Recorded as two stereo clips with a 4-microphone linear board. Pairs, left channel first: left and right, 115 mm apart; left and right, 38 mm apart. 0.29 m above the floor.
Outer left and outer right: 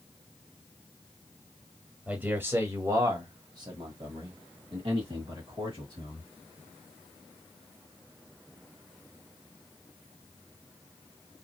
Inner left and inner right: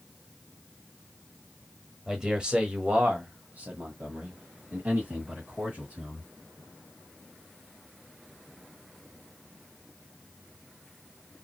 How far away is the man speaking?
About 1.1 m.